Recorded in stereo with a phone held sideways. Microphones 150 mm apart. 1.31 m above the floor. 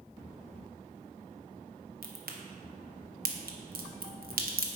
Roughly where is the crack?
Right.